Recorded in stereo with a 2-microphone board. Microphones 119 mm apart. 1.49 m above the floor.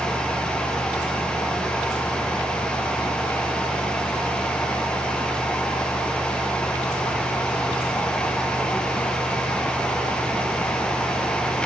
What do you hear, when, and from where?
Only background noise.